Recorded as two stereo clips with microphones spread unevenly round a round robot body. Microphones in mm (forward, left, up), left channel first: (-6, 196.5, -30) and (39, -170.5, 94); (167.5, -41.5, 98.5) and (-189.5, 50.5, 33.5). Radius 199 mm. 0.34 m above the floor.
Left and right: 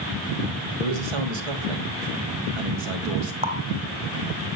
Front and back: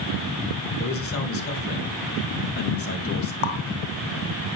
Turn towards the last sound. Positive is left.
turn(degrees=0)